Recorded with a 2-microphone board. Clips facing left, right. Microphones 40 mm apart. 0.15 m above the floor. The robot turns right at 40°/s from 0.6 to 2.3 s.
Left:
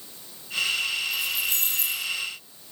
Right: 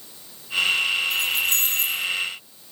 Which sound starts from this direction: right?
Keys jangling, at 1.1 s.